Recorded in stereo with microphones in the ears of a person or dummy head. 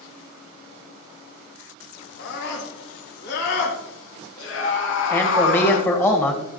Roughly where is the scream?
Left.